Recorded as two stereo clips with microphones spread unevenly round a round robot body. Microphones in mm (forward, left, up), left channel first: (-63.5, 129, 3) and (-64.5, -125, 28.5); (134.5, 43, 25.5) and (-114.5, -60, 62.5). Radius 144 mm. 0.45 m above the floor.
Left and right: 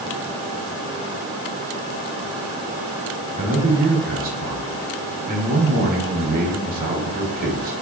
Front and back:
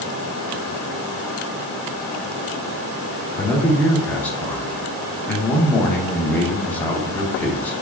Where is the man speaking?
50° right, 1.0 m.